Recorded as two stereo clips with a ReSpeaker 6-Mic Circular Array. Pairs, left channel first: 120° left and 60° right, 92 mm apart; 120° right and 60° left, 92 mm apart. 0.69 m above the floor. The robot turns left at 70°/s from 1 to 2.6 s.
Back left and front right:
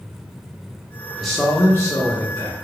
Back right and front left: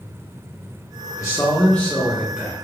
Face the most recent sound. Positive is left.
turn(degrees=105)